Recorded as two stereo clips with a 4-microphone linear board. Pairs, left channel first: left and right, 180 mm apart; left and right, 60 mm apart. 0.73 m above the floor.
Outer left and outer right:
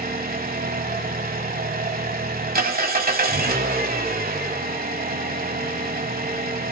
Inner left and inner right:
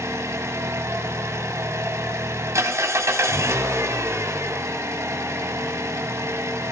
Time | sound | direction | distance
0.0 | an engine running | 50° right (ahead or behind) | 1.5 m